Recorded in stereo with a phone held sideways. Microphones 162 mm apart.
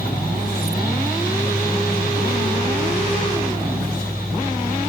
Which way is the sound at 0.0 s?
80° left.